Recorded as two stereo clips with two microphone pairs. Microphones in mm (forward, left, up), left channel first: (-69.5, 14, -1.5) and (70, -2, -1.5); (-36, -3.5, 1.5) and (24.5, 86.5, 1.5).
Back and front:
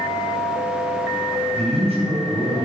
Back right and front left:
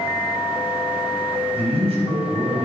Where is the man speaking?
35° left, 4 m; by 2.7 s 45° left, 4 m.